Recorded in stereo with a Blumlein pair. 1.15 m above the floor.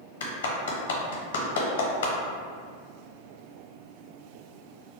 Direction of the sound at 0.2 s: 65° left.